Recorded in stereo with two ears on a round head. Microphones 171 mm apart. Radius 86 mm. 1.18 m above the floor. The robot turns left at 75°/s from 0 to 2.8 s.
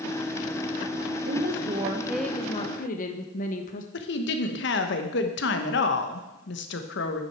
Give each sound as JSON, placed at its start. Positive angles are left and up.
{"t": 1.2, "sound": "a woman speaking", "azimuth_deg": -110, "distance_m": 0.8}
{"t": 3.9, "sound": "a woman speaking", "side_deg": 65, "distance_m": 1.1}